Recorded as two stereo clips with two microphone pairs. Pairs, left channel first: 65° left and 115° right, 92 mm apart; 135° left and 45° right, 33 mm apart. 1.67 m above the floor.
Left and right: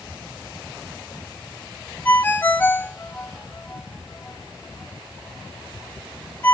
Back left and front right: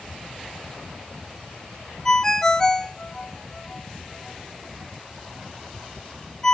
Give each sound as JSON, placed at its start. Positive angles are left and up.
{"t": 2.0, "sound": "a ringtone", "azimuth_deg": 90, "distance_m": 0.6}